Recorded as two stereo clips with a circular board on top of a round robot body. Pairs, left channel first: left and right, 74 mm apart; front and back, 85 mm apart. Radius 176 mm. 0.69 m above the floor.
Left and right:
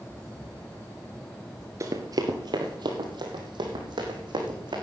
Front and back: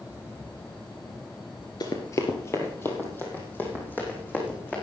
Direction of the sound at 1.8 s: 40° right.